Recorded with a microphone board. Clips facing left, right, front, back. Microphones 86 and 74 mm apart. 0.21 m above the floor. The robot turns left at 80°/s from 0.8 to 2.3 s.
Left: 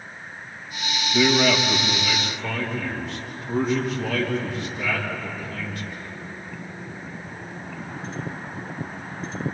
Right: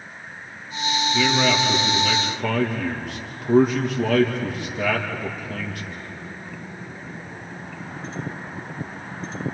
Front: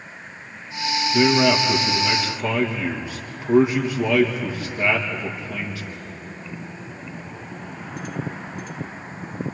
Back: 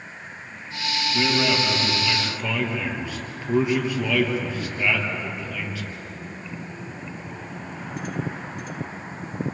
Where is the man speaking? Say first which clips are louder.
Left 2 dB, front 6 dB; 25° left, 4 m; by 6.1 s 70° right, 4 m.